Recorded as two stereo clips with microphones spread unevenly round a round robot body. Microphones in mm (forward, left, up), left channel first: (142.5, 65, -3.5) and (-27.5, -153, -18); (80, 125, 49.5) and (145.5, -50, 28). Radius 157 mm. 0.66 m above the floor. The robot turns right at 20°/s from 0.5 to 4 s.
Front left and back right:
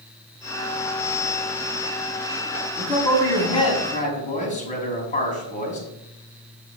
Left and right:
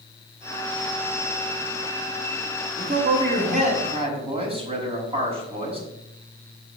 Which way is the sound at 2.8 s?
35° right.